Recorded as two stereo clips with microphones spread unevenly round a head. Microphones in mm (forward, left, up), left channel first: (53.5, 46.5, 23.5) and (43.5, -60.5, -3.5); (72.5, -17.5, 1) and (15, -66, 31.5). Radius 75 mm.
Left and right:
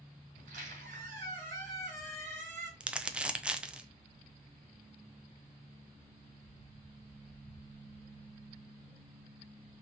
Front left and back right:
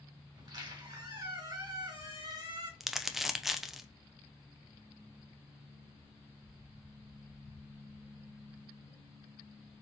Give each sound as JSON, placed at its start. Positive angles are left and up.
{"t": 0.3, "sound": "a squeak", "azimuth_deg": -120, "distance_m": 3.0}
{"t": 2.8, "sound": "crumpling", "azimuth_deg": -30, "distance_m": 0.6}